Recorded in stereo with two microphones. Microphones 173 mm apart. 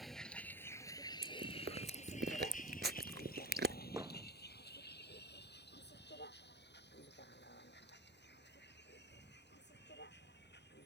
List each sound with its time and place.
0.0 s a vehicle: centre (ahead or behind); by 10.9 s 85° left
1.2 s chewing: 75° right (ahead or behind)
4.0 s hammering: 20° right (ahead or behind)